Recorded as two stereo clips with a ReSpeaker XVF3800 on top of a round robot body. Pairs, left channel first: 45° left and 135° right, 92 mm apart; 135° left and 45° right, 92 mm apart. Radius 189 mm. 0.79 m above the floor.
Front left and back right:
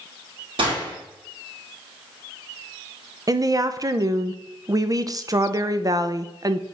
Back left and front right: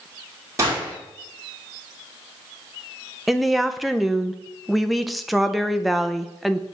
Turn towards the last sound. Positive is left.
turn(degrees=-135)